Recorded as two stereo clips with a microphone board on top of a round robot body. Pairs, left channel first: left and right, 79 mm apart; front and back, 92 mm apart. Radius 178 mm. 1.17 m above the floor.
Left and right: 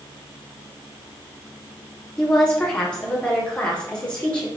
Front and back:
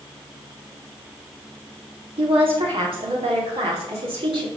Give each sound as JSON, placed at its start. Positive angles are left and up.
{"t": 2.2, "sound": "a woman speaking", "azimuth_deg": 170, "distance_m": 4.5}